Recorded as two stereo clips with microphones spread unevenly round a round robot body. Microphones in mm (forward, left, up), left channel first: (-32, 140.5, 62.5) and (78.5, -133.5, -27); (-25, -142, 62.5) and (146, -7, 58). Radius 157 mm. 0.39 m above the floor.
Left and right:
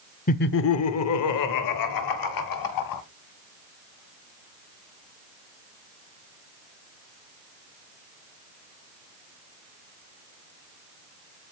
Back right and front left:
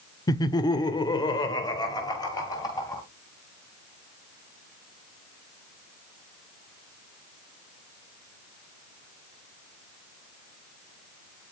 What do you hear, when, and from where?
0.3 s laughter: straight behind, 0.8 m; by 3.0 s 140° left, 2.5 m